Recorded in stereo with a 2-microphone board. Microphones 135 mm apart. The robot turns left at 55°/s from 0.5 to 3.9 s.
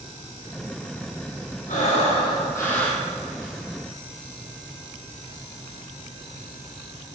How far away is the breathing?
About 4 m.